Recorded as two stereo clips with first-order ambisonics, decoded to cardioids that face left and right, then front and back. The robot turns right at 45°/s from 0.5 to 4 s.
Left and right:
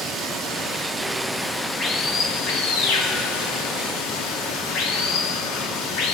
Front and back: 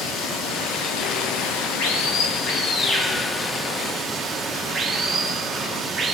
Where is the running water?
40° right, 1.9 m; by 6.1 s 120° left, 1.9 m.